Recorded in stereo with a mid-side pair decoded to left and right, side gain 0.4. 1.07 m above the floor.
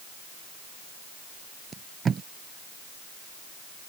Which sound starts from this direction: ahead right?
Tape being pulled, at 1.7 s.